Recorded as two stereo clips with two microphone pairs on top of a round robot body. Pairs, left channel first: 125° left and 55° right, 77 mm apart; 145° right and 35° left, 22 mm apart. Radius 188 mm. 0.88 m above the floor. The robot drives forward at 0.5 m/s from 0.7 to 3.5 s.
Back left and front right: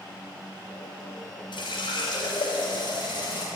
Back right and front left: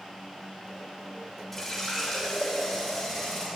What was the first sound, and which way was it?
A running tap, 140° left.